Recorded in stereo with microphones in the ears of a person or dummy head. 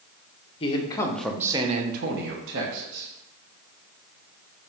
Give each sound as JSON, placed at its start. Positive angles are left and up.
{"t": 0.6, "sound": "a man speaking", "side_deg": 30, "distance_m": 1.5}